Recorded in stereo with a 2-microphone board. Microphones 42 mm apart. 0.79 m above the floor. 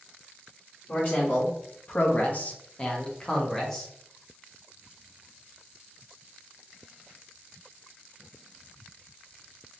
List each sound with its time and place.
0.9 s a man speaking: 35° left (ahead or behind), 1.1 m; by 3.9 s 10° left (ahead or behind), 1.2 m